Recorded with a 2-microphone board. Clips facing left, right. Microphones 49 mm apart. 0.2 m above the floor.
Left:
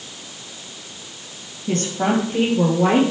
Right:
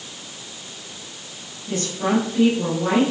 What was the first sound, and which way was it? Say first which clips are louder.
A woman speaking: left 2 dB; 65° left (ahead or behind).